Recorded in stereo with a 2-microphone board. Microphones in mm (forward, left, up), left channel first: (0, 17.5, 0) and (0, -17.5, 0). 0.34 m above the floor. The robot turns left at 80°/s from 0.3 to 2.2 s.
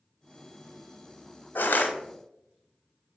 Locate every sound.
1.6 s crushing: 70° left (ahead or behind), 0.7 m; by 1.9 s 50° left (ahead or behind), 0.7 m